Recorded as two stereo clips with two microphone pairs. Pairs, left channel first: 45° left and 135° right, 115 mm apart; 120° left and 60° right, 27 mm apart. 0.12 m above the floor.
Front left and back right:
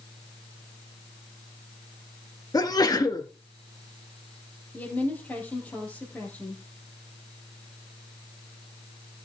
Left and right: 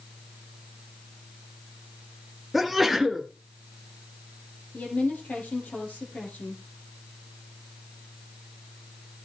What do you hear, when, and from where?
2.5 s a sneeze: 25° left, 1.3 m
4.7 s a woman speaking: 120° left, 3.5 m